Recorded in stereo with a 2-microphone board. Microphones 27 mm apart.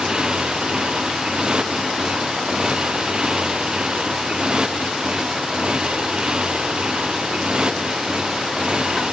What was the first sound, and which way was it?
A motorcycle, 30° right (ahead or behind).